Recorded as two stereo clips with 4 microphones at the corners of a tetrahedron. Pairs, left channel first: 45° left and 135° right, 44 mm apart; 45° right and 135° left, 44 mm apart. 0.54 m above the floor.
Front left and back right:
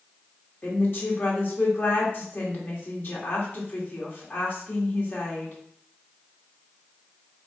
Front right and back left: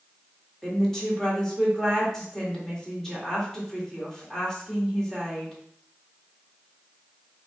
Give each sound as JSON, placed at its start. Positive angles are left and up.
{"t": 0.6, "sound": "a woman speaking", "azimuth_deg": 35, "distance_m": 1.7}